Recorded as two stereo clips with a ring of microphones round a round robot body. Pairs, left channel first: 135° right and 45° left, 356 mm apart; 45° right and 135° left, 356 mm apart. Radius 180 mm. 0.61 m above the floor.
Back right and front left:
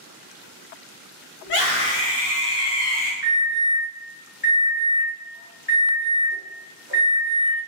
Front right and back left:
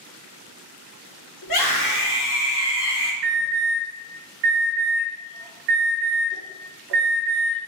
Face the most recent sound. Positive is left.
turn(degrees=110)